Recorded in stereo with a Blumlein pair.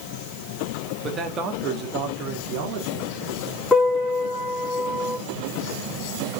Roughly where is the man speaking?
Ahead.